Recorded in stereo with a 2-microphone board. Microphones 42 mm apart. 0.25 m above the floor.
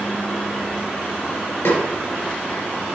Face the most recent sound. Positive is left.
turn(degrees=75)  # may be behind; listen again after turning